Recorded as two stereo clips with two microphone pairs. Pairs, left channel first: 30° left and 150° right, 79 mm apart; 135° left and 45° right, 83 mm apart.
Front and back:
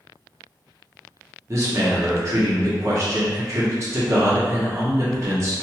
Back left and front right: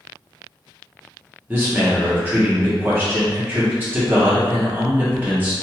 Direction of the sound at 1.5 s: 110° right.